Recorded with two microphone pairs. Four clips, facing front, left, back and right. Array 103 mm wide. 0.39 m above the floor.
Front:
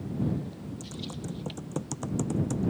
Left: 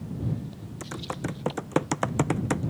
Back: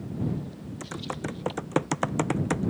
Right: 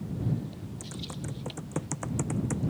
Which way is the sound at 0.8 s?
135° left.